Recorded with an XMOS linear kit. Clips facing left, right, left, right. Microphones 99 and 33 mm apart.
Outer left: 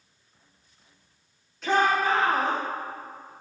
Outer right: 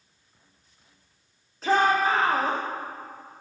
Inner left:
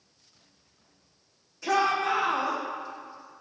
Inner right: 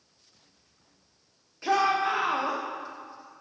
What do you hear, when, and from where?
1.6 s a shout: 35° right (ahead or behind), 6 m